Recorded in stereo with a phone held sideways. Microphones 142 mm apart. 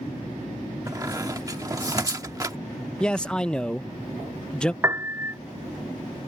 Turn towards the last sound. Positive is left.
turn(degrees=-20)  # may be behind; listen again after turning